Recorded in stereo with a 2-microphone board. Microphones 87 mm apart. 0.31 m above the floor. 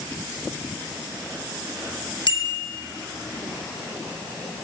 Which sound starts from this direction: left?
A bicycle bell, at 2.3 s.